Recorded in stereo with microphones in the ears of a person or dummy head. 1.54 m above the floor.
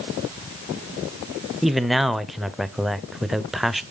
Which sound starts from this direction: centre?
A man speaking, at 1.6 s.